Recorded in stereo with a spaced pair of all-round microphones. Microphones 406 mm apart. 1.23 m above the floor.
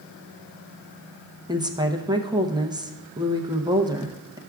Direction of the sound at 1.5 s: 10° right (ahead or behind).